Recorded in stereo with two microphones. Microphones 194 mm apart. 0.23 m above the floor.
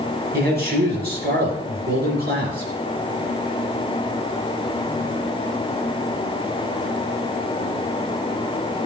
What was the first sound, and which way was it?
A man speaking, 55° right (ahead or behind).